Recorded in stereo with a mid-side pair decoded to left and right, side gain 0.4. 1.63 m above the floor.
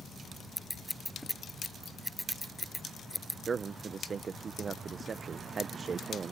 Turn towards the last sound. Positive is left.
turn(degrees=-50)